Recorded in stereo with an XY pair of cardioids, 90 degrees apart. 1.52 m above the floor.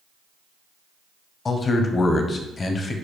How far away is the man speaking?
About 0.8 m.